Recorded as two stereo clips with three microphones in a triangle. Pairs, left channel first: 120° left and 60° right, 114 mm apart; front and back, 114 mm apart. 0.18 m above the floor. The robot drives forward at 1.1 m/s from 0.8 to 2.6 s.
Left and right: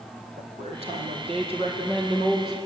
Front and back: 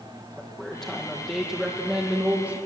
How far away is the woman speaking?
About 5.5 m.